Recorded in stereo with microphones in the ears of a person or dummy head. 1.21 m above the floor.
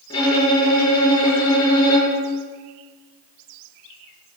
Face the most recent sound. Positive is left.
turn(degrees=25)  # may be behind; listen again after turning